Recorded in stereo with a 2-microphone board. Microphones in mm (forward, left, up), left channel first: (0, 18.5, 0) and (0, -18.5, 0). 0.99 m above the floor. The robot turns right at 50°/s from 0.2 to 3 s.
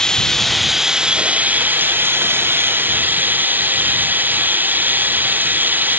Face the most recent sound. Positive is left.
turn(degrees=-60)